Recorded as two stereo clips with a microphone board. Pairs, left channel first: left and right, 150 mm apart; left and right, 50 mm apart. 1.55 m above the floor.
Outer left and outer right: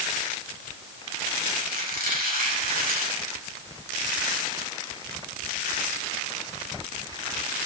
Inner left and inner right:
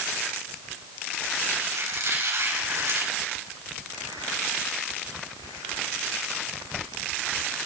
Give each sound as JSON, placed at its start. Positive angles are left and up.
{"t": 1.6, "sound": "a squeak", "side_deg": -75, "distance_m": 4.0}